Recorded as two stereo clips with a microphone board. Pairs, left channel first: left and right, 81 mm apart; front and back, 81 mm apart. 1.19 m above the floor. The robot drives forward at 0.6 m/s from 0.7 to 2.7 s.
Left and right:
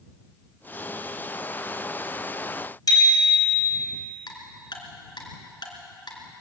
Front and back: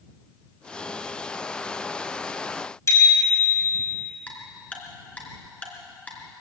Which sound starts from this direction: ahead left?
A bicycle bell, at 2.9 s.